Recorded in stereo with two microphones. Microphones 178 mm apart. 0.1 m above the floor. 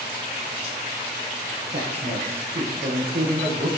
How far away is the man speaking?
About 3 m.